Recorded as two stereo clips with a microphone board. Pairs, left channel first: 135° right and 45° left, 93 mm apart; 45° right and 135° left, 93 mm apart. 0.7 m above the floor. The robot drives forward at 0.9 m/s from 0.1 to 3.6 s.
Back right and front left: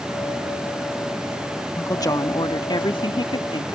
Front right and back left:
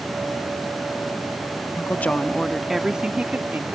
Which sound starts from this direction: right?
A woman speaking, at 1.8 s.